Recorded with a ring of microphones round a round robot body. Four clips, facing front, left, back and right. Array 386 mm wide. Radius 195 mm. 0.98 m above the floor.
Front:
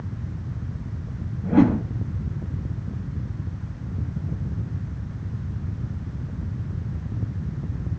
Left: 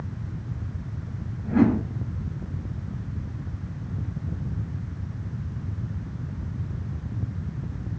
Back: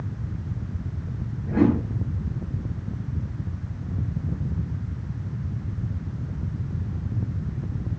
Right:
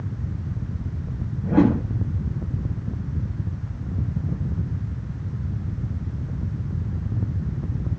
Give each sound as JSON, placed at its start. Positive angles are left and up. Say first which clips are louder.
{"t": 1.4, "sound": "a whoosh", "louder": "right 2 dB, front 3 dB", "azimuth_deg": -45, "distance_m": 8.0}